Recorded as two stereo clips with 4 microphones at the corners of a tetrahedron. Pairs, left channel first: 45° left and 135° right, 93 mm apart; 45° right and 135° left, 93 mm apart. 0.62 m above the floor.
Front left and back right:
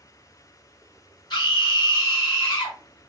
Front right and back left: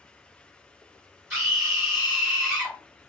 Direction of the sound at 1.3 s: 70° left.